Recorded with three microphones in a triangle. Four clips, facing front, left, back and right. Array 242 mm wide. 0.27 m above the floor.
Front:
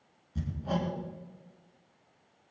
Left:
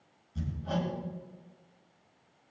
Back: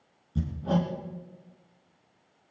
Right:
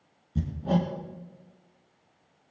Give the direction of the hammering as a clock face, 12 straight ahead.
4 o'clock.